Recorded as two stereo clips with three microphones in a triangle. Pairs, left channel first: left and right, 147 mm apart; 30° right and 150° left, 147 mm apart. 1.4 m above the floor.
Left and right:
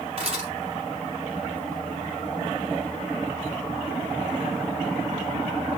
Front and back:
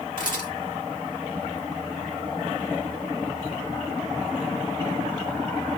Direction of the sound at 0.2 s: 40° right.